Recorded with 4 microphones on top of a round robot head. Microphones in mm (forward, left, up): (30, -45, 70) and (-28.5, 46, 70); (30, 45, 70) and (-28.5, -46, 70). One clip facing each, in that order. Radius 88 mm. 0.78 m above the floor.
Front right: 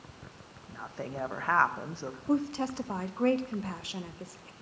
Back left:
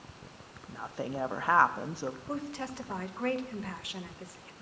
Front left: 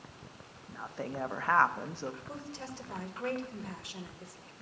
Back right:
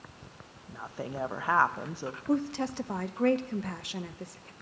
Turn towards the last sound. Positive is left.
turn(degrees=-115)